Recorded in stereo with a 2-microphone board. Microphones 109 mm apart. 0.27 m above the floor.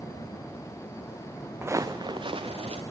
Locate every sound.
1.6 s footsteps: 20° right (ahead or behind), 1.2 m; by 2.8 s 65° right (ahead or behind), 2 m